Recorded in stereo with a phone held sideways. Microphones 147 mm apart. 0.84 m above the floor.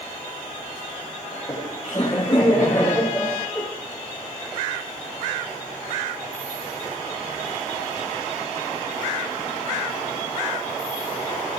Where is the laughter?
30° left (ahead or behind), 5.5 m; by 3.6 s 10° left (ahead or behind), 3.5 m.